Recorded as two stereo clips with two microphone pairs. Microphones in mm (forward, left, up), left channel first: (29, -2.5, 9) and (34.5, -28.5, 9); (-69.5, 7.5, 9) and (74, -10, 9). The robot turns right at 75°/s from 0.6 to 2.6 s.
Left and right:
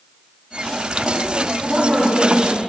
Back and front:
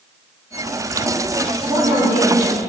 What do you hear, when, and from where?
1.6 s a woman speaking: 70° right, 3.5 m; by 2.6 s straight ahead, 3.5 m